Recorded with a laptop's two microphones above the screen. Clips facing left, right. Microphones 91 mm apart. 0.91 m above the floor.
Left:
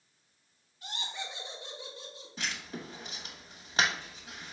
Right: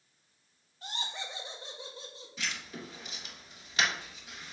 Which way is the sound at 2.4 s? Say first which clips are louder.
Left 1 dB; 35° left (ahead or behind).